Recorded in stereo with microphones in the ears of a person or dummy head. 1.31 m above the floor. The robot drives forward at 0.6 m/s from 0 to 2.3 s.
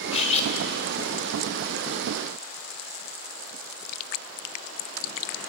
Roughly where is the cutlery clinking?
Left.